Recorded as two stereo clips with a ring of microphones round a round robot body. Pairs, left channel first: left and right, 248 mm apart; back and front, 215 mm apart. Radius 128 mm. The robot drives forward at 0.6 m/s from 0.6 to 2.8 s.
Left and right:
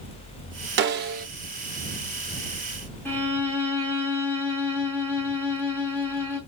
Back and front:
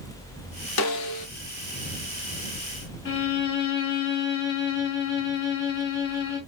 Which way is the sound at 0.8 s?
135° right.